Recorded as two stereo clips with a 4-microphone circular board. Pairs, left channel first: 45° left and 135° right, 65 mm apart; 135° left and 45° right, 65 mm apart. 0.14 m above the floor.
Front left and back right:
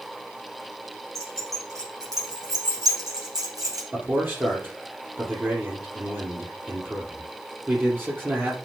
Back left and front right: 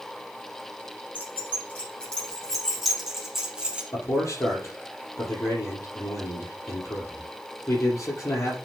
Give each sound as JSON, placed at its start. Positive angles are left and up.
{"t": 1.1, "sound": "keys jangling", "azimuth_deg": -165, "distance_m": 5.5}
{"t": 3.9, "sound": "a man speaking", "azimuth_deg": 175, "distance_m": 5.0}